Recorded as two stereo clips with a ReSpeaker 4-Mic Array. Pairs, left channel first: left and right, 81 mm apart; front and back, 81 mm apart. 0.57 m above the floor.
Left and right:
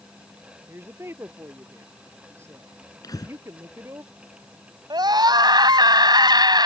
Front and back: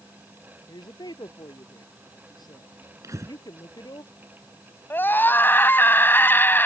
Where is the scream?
65° right.